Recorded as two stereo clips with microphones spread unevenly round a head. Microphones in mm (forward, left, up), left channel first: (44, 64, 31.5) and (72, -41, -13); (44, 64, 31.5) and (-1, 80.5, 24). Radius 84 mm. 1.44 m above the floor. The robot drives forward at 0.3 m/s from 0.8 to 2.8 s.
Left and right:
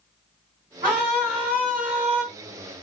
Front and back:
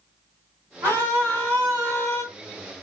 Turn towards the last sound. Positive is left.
turn(degrees=-155)